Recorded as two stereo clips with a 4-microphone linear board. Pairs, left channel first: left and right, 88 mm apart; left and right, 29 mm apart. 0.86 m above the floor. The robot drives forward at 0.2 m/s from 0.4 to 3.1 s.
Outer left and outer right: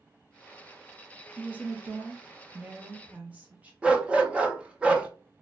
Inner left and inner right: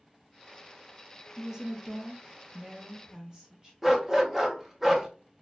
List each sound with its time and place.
1.4 s a woman speaking: 20° right (ahead or behind), 0.5 m; by 3.7 s 15° right (ahead or behind), 0.6 m
3.8 s a dog barking: 10° right (ahead or behind), 0.6 m